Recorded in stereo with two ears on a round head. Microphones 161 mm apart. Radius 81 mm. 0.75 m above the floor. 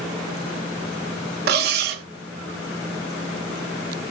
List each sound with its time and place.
1.5 s cutlery clinking: 60° right (ahead or behind), 1.7 m